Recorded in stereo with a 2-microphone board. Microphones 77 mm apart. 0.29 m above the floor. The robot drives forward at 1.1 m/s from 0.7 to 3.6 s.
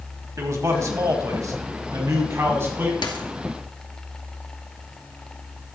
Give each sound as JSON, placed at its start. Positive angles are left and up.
{"t": 0.4, "sound": "a man speaking", "side_deg": -45, "distance_m": 1.8}
{"t": 3.0, "sound": "a dropped coin", "side_deg": 85, "distance_m": 1.4}